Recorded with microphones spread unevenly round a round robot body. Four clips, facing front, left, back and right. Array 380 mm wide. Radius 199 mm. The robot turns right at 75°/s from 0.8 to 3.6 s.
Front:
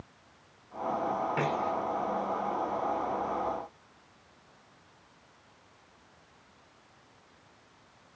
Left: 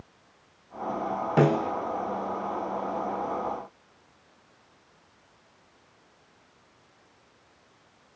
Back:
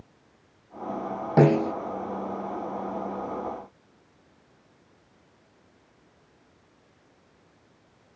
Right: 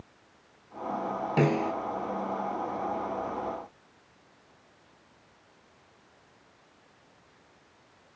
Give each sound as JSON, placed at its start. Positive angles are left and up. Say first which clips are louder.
{"t": 1.4, "sound": "a snare drum", "louder": "left 3 dB, back 10 dB", "azimuth_deg": 165}